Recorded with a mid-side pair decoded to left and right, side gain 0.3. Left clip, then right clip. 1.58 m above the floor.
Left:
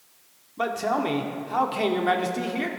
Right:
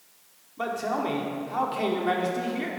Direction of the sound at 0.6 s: 55° left.